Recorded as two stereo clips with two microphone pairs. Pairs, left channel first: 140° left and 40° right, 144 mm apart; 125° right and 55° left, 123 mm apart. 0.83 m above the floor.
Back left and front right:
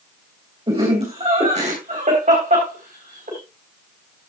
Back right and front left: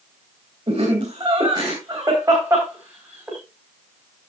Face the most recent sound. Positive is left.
turn(degrees=-20)